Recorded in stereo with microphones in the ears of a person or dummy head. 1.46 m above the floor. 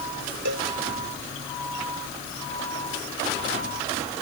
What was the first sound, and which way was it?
A cowbell, 60° right (ahead or behind).